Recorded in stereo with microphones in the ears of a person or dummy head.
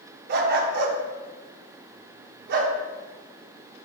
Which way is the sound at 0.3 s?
60° right (ahead or behind).